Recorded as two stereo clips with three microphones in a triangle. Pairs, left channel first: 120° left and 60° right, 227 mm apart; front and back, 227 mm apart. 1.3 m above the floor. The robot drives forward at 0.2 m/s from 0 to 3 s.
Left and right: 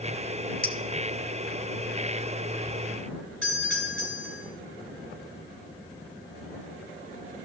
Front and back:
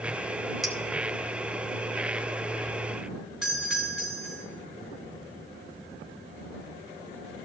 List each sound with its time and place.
0.6 s a clink: 90° left, 0.8 m
3.4 s a doorbell: 95° right, 4.5 m